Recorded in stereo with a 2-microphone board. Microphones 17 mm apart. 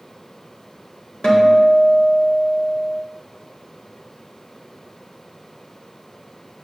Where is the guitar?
50° left (ahead or behind), 1.9 m.